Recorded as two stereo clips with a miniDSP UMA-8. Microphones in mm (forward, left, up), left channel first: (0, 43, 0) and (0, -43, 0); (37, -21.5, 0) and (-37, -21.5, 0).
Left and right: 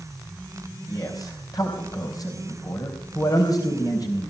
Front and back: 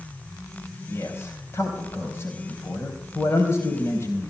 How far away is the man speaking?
About 3.5 m.